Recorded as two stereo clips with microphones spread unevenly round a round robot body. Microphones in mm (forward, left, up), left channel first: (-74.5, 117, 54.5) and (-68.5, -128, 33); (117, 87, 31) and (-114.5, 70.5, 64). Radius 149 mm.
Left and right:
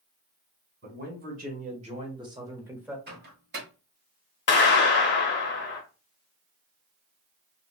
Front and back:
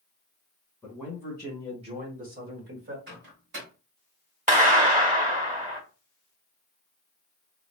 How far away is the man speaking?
About 1.7 m.